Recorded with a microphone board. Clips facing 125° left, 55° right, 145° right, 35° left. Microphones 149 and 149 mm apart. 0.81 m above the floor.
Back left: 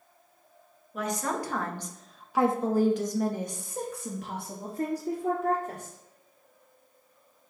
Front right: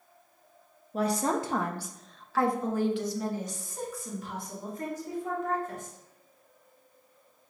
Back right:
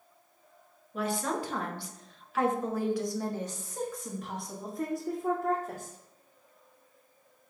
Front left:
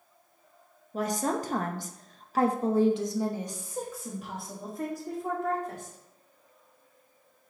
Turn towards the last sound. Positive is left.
turn(degrees=130)